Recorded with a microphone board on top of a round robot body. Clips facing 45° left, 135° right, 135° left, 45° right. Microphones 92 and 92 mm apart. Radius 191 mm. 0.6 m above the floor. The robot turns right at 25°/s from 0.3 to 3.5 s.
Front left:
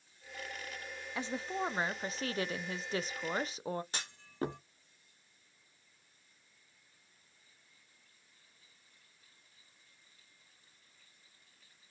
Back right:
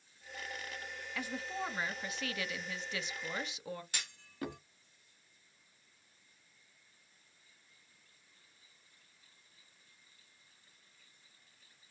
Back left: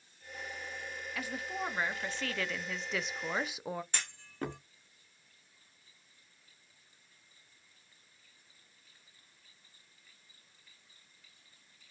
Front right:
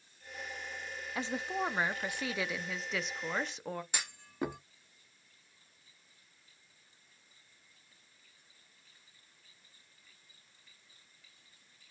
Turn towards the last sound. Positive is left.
turn(degrees=25)